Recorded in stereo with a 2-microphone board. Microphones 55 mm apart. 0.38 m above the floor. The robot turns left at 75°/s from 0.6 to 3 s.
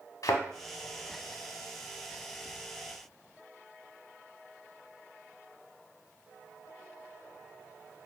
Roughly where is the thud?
Left.